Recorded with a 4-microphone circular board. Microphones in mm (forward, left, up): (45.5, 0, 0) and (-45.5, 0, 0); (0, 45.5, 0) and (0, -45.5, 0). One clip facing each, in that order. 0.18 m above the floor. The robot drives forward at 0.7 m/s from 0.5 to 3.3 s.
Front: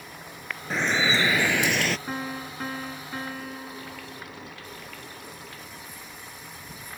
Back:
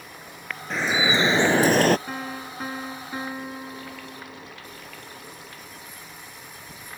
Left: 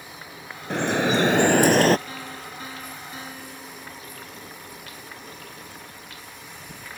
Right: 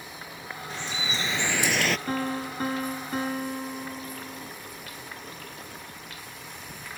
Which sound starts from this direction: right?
A piano, at 2.1 s.